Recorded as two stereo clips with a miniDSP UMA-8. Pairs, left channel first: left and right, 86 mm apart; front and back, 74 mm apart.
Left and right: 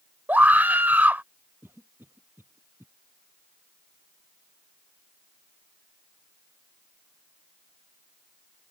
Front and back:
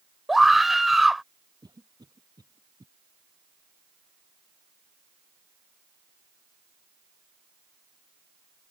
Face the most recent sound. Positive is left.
turn(degrees=-155)